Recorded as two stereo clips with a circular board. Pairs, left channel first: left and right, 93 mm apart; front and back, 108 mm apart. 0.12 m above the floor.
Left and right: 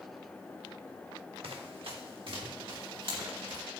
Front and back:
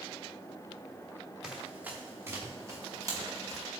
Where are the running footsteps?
95° right, 1.5 m; by 3.6 s 125° right, 3.5 m.